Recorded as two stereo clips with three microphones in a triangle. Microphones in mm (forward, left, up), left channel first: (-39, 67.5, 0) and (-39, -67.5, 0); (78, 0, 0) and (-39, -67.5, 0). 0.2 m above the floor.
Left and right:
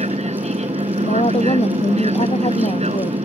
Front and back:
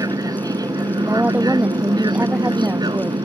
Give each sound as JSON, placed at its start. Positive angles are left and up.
{"t": 0.0, "sound": "an aircraft", "azimuth_deg": -95}
{"t": 1.0, "sound": "a woman speaking", "azimuth_deg": 130}